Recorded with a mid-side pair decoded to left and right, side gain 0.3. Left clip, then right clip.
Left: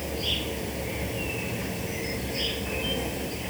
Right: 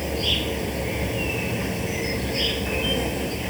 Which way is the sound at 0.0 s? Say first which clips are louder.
Right 5 dB; 50° right.